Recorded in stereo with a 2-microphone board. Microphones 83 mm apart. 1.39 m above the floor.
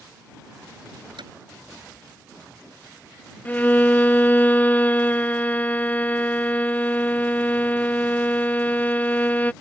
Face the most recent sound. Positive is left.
turn(degrees=20)  # may be behind; listen again after turning